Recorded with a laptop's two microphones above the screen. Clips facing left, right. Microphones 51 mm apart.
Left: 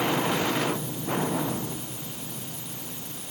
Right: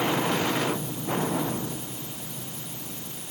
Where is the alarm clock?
No alarm clock in this recording.